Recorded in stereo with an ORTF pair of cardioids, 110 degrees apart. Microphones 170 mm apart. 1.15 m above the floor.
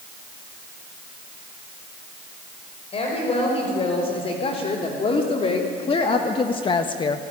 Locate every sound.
2.9 s a woman speaking: 35° left, 5.5 m; by 7.2 s 30° left, 0.9 m